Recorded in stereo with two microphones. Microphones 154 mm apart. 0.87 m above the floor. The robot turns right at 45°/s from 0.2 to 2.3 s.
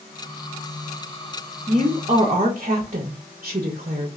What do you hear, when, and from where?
1.7 s a woman speaking: 40° right (ahead or behind), 0.6 m; by 4.1 s 50° right (ahead or behind), 0.6 m